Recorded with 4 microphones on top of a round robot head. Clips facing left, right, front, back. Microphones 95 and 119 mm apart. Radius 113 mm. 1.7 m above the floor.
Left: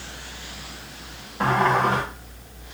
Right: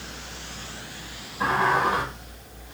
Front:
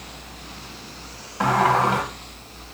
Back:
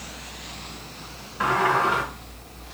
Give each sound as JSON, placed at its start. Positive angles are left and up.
{"t": 1.4, "sound": "a sliding door", "azimuth_deg": 45, "distance_m": 1.1}